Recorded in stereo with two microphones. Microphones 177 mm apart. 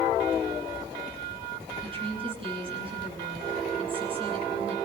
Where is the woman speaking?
30° right (ahead or behind), 7.5 m.